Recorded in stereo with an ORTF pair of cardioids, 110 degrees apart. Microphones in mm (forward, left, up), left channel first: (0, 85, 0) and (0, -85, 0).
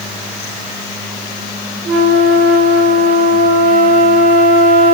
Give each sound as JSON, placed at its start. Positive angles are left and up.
{"t": 1.9, "sound": "a flute", "azimuth_deg": -50, "distance_m": 1.1}